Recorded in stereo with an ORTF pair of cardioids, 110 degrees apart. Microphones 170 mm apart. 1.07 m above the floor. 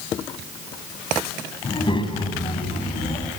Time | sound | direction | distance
1.6 | a child speaking | 30° left | 7 m